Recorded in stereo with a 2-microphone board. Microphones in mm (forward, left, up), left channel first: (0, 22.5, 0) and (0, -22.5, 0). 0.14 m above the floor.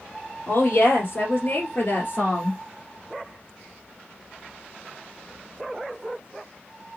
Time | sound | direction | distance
0.5 | a woman speaking | 50° left (ahead or behind) | 3 m